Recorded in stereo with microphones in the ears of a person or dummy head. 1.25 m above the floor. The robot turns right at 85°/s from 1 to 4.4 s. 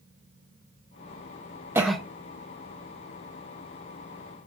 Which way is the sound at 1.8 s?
15° right (ahead or behind).